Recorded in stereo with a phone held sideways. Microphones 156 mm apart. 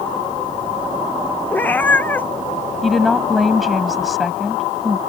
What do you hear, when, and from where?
1.5 s a cat meowing: 10° left (ahead or behind)
2.8 s a woman speaking: centre (ahead or behind)